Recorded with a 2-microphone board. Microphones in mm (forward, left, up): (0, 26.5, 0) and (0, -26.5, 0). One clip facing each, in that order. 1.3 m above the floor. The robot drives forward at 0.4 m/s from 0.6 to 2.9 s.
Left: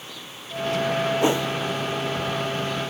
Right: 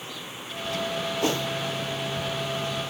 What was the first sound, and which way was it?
A whoosh, 20° left (ahead or behind).